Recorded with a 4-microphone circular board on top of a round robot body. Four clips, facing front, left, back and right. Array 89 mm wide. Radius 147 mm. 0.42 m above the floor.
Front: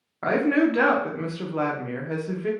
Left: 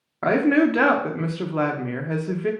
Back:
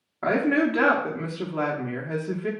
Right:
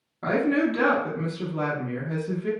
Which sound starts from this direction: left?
A woman speaking, at 0.2 s.